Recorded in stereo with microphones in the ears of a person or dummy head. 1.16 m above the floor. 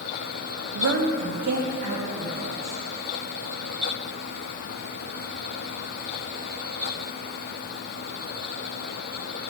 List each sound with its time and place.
0.8 s a woman speaking: 80° right, 0.9 m; by 2.8 s 40° right (ahead or behind), 3 m